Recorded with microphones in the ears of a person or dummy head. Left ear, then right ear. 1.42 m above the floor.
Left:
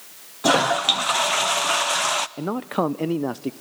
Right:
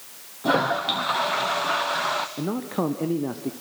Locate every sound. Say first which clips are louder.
0.4 s a toilet flushing: left 4 dB; 45° left (ahead or behind), 0.6 m
2.4 s a man speaking: left 3 dB; 35° left (ahead or behind), 0.5 m